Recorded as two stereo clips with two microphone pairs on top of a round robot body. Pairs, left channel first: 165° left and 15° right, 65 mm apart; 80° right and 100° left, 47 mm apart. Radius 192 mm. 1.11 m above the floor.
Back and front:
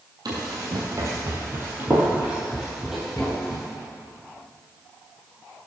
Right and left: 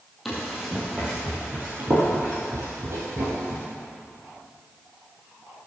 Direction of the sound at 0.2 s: 10° left.